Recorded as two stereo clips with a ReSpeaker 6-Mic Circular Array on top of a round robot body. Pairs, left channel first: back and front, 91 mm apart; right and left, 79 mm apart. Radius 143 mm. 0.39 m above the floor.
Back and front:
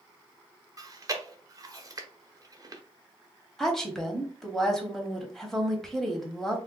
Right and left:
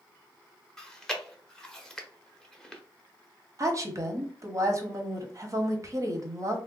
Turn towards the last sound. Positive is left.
turn(degrees=95)